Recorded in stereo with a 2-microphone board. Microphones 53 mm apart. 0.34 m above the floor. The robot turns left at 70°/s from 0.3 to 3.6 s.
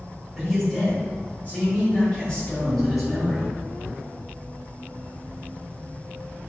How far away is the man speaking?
About 1.7 m.